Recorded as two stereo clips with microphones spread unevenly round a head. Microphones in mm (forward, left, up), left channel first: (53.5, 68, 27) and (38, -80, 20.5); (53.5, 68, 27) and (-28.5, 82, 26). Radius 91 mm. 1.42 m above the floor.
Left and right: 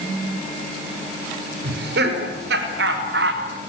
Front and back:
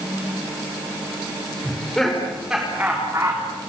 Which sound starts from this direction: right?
Laughter, at 1.6 s.